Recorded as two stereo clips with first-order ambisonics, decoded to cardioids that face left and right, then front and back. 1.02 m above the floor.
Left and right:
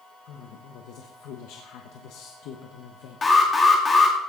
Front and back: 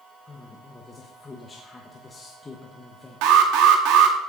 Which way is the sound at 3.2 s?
165° left.